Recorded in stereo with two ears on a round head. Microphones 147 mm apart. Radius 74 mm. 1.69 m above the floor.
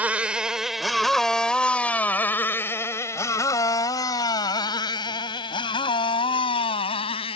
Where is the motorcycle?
10° right (ahead or behind); by 7.4 s 35° left (ahead or behind).